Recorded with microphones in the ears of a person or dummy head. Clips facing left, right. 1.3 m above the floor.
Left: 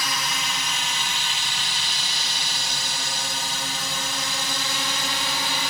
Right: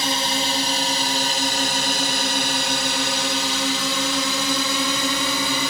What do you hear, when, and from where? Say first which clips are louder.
0.0 s a drone: right 7 dB; 25° right (ahead or behind); by 5.7 s 70° right (ahead or behind)